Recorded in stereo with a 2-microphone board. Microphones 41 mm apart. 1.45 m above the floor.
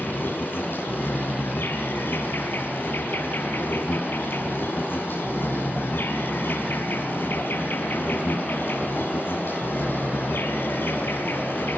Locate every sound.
0.0 s an insect: 55° left (ahead or behind), 6.5 m